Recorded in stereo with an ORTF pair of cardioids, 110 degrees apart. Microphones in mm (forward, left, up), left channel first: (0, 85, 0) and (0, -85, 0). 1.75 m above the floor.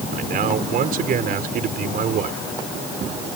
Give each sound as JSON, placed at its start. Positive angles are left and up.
{"t": 0.1, "sound": "a man speaking", "azimuth_deg": -60}